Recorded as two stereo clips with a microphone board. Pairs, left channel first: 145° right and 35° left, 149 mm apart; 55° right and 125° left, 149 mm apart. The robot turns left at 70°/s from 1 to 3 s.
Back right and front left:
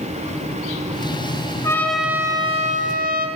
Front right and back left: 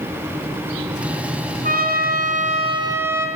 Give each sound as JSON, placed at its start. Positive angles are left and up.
{"t": 1.6, "sound": "a trumpet", "azimuth_deg": 145, "distance_m": 3.0}